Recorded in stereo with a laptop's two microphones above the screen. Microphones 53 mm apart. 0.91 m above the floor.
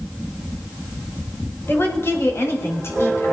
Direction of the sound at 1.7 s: 45° left (ahead or behind).